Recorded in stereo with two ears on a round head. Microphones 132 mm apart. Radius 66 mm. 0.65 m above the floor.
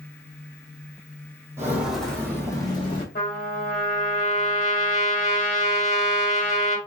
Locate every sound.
1.6 s footsteps: 15° right (ahead or behind), 1.2 m; by 3.0 s 35° left (ahead or behind), 1.7 m
3.1 s a trumpet: 50° left (ahead or behind), 1.2 m